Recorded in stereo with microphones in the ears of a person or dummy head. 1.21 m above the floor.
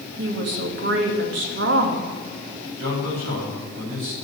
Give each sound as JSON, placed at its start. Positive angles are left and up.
{"t": 0.2, "sound": "a woman speaking", "side_deg": -70, "distance_m": 1.8}
{"t": 2.8, "sound": "a man speaking", "side_deg": -85, "distance_m": 5.5}